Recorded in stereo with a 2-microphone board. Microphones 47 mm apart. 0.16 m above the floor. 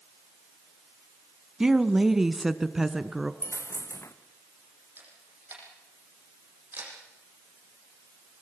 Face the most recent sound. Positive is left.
turn(degrees=-45)  # may be behind; listen again after turning